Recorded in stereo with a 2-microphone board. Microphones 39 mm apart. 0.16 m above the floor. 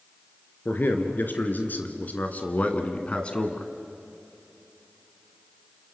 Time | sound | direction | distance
0.7 | a man speaking | 55° left (ahead or behind) | 3 m